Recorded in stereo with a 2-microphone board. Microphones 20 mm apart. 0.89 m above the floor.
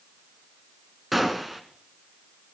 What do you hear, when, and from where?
1.1 s a gunshot: 5° right (ahead or behind), 1.4 m